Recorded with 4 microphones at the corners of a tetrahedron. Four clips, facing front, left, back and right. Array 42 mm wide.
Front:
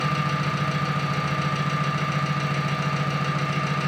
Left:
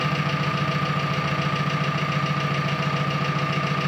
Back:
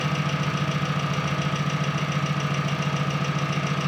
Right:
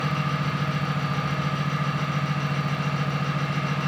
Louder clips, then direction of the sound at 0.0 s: Left 2 dB, front 2 dB; 85° left.